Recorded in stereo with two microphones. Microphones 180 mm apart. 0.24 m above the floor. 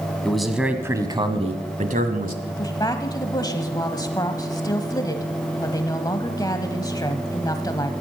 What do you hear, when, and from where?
0.2 s a man speaking: 5° left (ahead or behind), 1.5 m; by 2.4 s 55° right (ahead or behind), 1.6 m
2.5 s a woman speaking: 20° left (ahead or behind), 1.0 m